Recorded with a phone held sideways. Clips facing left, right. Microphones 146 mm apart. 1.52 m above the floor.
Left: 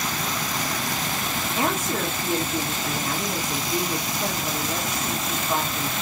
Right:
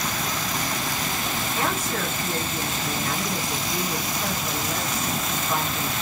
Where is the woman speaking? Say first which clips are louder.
Left 3 dB; 20° left (ahead or behind), 1.4 m.